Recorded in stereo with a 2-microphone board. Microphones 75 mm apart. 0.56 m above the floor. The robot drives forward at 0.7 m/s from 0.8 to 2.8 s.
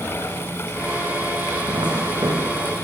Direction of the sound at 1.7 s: 80° right.